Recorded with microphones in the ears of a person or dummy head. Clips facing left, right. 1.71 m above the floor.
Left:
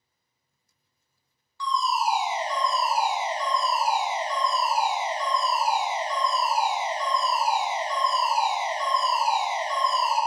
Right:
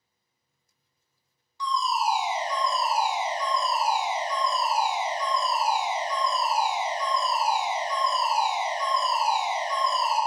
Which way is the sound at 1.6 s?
15° right (ahead or behind).